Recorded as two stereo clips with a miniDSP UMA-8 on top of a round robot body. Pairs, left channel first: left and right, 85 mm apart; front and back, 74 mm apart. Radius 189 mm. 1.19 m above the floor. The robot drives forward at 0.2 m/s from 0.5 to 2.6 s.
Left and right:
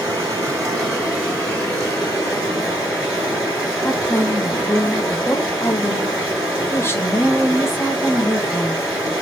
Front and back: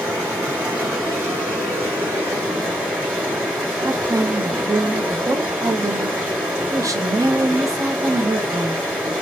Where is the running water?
170° right, 1.2 m; by 9.2 s 175° right, 1.4 m.